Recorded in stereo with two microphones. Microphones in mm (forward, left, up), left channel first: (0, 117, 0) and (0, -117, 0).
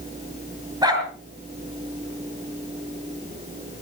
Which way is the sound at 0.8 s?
15° right (ahead or behind).